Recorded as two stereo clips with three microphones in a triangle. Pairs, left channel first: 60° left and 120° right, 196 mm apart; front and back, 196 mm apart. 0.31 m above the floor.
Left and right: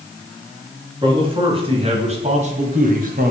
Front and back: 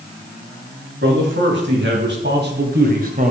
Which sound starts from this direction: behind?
A man speaking, at 1.0 s.